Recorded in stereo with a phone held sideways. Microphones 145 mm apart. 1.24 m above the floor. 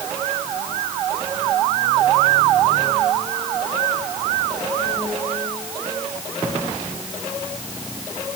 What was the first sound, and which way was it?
Only background noise.